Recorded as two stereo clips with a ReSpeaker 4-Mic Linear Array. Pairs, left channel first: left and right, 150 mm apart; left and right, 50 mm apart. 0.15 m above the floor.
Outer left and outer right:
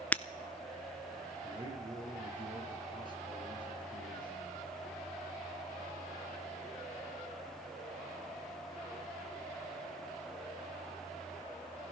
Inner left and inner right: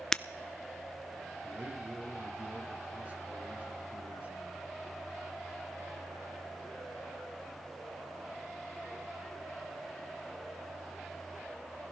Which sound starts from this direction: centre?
Breaking glass, at 0.1 s.